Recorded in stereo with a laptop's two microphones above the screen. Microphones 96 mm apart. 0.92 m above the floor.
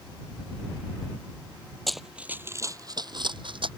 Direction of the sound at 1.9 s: 5° left (ahead or behind).